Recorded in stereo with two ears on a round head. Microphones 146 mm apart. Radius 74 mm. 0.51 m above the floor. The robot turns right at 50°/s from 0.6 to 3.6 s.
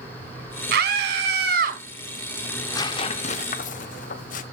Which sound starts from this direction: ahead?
Tearing paper, at 2.5 s.